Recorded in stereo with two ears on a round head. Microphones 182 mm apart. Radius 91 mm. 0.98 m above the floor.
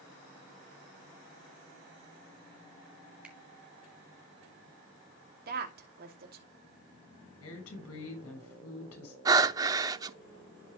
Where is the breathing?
20° right (ahead or behind), 0.5 m.